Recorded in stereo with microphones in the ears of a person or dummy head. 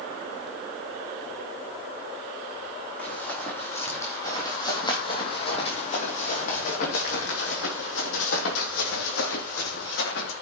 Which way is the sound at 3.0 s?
10° left (ahead or behind).